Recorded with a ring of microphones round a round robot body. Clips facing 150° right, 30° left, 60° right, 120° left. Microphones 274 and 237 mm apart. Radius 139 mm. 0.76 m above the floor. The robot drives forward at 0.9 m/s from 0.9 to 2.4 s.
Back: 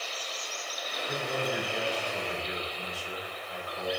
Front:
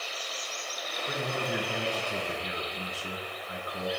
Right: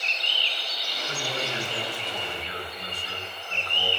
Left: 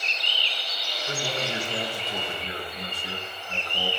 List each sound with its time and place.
1.1 s a man speaking: 55° left, 10 m; by 3.9 s 60° left, 9.5 m